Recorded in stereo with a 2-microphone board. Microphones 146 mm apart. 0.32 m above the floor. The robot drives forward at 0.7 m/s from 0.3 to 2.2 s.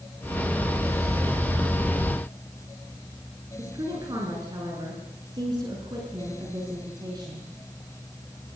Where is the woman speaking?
30° right (ahead or behind), 4.5 m.